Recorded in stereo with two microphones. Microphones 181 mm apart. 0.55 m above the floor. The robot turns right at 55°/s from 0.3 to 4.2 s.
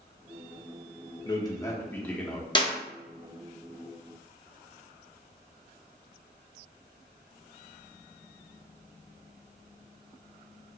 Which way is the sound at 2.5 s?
25° left (ahead or behind).